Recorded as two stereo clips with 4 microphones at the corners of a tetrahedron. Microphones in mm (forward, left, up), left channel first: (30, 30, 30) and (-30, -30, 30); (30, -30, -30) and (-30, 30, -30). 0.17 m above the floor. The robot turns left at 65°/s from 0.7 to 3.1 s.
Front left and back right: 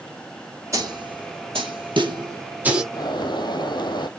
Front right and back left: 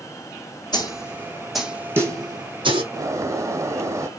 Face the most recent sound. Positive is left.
turn(degrees=80)